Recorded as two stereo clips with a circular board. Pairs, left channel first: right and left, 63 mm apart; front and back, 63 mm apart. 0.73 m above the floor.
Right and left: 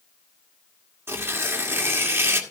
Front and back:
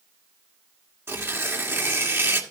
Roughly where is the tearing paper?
Behind left.